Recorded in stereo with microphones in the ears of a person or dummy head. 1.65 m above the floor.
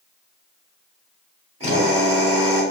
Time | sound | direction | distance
1.6 | a drill | 40° right (ahead or behind) | 5 m